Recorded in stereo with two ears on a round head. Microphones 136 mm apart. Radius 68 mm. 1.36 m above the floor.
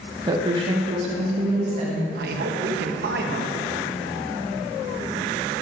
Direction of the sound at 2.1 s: 65° right (ahead or behind).